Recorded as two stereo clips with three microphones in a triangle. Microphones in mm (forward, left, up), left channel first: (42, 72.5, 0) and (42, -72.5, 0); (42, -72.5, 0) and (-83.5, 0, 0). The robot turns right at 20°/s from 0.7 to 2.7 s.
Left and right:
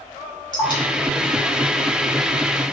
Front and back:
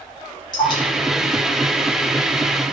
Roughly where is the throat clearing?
No throat clearing in this recording.